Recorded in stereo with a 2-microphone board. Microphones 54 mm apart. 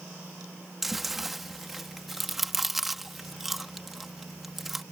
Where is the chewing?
Centre (ahead or behind).